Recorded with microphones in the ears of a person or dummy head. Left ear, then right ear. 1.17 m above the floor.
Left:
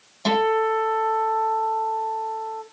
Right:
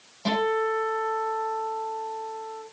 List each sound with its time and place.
0.2 s a guitar: 40° left (ahead or behind), 9.5 m